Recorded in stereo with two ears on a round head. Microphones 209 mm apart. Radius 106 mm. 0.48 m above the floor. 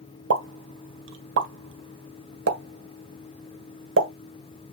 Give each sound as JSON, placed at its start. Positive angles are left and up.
{"t": 0.3, "sound": "a pop", "side_deg": -55, "distance_m": 1.7}